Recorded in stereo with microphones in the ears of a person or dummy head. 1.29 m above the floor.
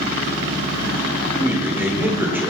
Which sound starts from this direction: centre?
A man speaking, at 1.4 s.